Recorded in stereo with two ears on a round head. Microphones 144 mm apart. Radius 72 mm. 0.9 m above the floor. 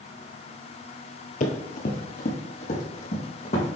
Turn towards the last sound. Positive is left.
turn(degrees=45)  # may be behind; listen again after turning